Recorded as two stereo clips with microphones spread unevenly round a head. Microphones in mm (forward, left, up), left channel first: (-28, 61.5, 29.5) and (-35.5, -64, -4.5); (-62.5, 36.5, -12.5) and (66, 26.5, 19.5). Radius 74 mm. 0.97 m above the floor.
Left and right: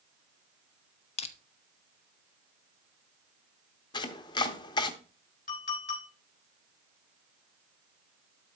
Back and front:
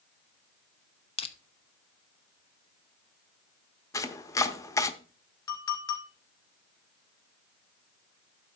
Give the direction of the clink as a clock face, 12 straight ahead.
8 o'clock.